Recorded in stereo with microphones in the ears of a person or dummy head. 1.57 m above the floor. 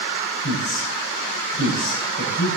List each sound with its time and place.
0.4 s a man speaking: 75° left (ahead or behind), 8 m